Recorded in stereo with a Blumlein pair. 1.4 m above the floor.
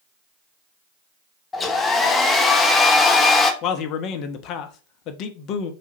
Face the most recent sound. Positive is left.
turn(degrees=35)